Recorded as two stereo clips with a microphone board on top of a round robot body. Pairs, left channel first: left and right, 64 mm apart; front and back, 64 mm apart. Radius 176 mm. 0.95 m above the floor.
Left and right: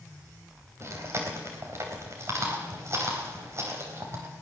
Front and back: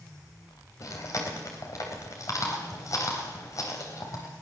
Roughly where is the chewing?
Ahead right.